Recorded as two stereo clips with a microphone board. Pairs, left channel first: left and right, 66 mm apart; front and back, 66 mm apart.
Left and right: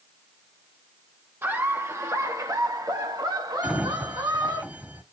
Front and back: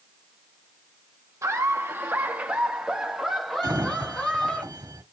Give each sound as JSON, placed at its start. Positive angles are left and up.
{"t": 1.4, "sound": "laughter", "azimuth_deg": -145, "distance_m": 1.4}
{"t": 3.6, "sound": "a sliding door", "azimuth_deg": -160, "distance_m": 1.3}